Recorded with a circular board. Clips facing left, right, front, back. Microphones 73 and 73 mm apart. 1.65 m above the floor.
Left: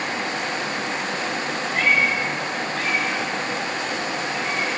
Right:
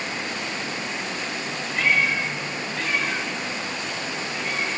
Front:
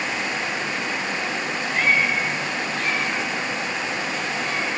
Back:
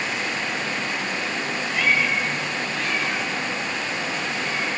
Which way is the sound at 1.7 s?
50° left.